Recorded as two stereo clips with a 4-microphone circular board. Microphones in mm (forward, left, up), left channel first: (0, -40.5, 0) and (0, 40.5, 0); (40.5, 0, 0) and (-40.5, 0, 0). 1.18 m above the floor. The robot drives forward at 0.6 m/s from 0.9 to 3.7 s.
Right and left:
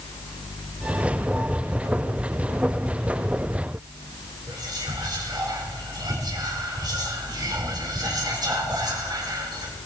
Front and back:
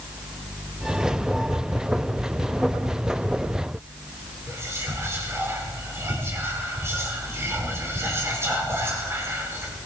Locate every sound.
4.5 s whispering: 120° left, 4.5 m